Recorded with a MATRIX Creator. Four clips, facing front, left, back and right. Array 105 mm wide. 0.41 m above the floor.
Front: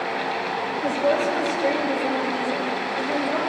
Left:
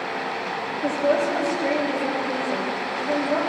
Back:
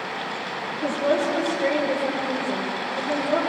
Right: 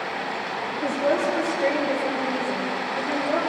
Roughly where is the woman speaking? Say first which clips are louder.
Left 1 dB, even; right.